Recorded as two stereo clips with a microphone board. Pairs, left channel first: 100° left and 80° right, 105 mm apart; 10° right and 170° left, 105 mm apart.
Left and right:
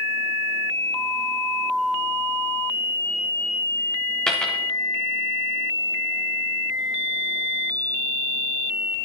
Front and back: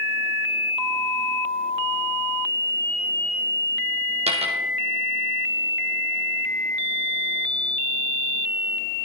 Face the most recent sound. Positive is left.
turn(degrees=-175)